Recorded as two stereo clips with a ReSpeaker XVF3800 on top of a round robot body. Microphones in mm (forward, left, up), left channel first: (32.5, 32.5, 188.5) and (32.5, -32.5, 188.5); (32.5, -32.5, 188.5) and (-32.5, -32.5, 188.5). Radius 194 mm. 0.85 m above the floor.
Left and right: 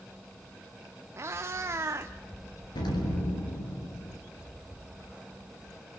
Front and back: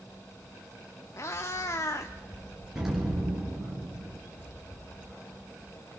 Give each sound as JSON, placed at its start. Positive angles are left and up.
{"t": 1.2, "sound": "a cat meowing", "azimuth_deg": -45, "distance_m": 0.5}
{"t": 2.8, "sound": "an explosion", "azimuth_deg": 95, "distance_m": 3.0}